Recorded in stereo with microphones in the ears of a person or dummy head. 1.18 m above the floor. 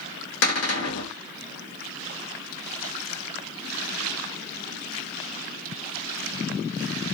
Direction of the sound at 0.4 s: 65° left (ahead or behind).